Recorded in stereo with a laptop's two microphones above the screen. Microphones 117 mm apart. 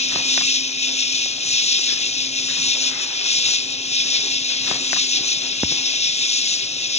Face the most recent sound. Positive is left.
turn(degrees=70)  # may be behind; listen again after turning